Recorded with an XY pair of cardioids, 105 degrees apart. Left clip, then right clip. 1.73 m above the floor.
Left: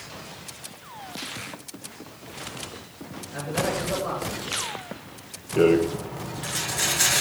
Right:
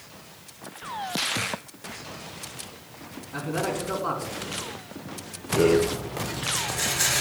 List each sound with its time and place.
3.3 s a man speaking: 65° right, 3.5 m
5.6 s a rattle: 20° left, 1.0 m